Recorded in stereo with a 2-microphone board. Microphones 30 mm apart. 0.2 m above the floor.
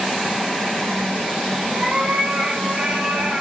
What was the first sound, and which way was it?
A cat meowing, 35° right (ahead or behind).